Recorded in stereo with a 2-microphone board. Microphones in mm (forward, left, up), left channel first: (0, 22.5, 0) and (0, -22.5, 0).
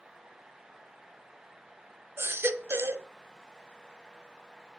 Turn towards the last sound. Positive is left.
turn(degrees=-65)  # may be behind; listen again after turning